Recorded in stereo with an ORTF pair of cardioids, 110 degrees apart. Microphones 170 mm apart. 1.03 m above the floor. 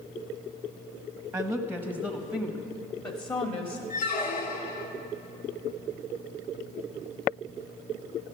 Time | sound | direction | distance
1.3 | a woman speaking | 5° right | 0.9 m
3.9 | a squeak | 60° left | 1.3 m